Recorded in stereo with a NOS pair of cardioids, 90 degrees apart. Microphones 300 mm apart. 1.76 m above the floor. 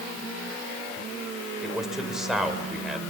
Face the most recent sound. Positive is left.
turn(degrees=0)